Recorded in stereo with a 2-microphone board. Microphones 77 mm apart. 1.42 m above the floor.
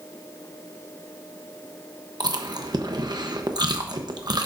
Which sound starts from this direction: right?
Chewing, at 2.2 s.